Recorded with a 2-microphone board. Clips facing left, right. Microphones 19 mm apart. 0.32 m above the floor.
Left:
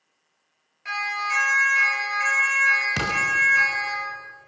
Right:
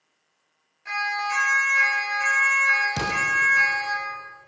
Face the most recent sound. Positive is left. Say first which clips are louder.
# left 1 dB
turn(degrees=80)